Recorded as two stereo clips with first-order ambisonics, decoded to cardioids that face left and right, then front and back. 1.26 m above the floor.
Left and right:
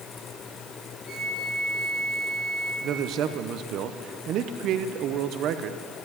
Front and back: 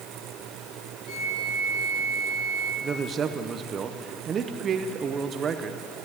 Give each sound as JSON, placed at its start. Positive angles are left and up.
{"t": 1.1, "sound": "a flute", "azimuth_deg": 50, "distance_m": 3.0}
{"t": 2.8, "sound": "a man speaking", "azimuth_deg": -120, "distance_m": 0.7}